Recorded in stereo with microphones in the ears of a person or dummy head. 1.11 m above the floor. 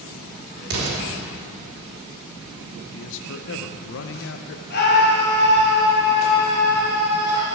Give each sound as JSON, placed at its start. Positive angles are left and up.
{"t": 0.7, "sound": "an explosion", "side_deg": -80, "distance_m": 2.5}
{"t": 2.9, "sound": "a man speaking", "side_deg": 65, "distance_m": 0.6}
{"t": 4.7, "sound": "a scream", "side_deg": 50, "distance_m": 1.8}